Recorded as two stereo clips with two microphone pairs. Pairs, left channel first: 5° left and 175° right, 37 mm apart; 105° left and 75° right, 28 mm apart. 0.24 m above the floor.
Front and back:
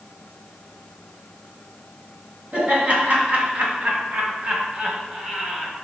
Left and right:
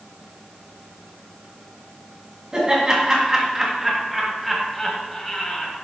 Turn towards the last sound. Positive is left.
turn(degrees=125)